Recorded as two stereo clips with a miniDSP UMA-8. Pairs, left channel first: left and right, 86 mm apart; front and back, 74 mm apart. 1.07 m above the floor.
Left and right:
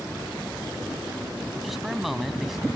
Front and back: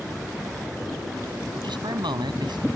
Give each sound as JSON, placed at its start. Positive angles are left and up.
{"t": 1.6, "sound": "a man speaking", "azimuth_deg": 180}